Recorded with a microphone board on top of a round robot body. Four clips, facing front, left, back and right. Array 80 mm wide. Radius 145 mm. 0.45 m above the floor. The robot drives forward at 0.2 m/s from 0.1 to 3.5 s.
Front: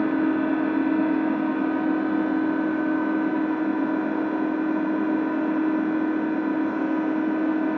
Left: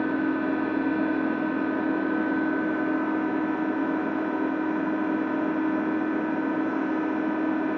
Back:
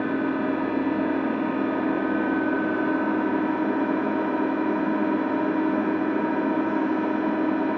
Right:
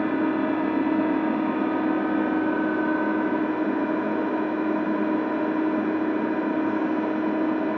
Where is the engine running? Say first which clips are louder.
Right 2 dB, front 3 dB; 70° right, 0.8 m; by 7.8 s 145° right, 1.0 m.